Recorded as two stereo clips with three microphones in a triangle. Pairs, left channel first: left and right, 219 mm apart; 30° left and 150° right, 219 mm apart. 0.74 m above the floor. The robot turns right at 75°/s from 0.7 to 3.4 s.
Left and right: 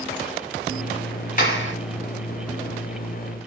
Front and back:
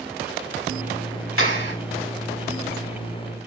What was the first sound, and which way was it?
A clap, 40° left.